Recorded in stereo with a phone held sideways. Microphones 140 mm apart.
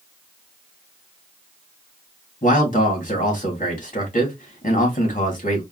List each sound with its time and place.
2.4 s a man speaking: 65° left (ahead or behind), 2.5 m